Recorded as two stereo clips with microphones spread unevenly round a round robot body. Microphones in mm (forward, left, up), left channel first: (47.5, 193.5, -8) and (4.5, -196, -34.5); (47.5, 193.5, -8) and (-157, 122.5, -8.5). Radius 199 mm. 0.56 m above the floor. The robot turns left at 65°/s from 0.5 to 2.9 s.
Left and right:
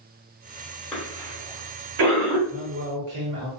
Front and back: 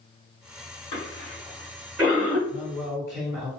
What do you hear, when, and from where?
0.9 s a cough: 10° right, 1.1 m; by 2.4 s 105° right, 1.1 m
2.5 s a man speaking: 70° right, 1.1 m; by 3.5 s 100° right, 1.1 m